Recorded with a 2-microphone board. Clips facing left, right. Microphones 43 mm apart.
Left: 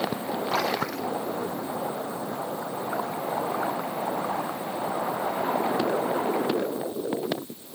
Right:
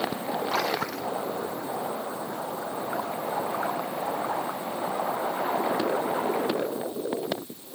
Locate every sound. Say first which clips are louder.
0.5 s a splash: left 3 dB; centre (ahead or behind)